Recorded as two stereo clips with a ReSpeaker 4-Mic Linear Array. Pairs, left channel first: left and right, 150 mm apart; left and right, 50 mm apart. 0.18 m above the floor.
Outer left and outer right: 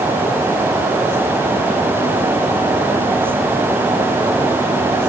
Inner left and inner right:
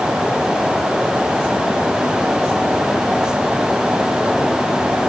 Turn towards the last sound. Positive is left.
No sound to turn to.